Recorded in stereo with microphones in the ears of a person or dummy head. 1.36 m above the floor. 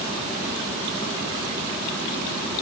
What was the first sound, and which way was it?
Only background noise.